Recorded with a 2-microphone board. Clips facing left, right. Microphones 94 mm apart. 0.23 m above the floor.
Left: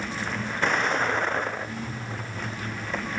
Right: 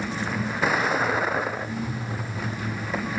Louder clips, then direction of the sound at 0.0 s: Right 3 dB; 5° right (ahead or behind).